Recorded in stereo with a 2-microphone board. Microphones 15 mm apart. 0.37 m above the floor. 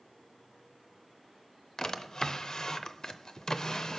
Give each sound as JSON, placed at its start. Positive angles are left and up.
{"t": 1.8, "sound": "a drawer", "side_deg": 45, "distance_m": 0.5}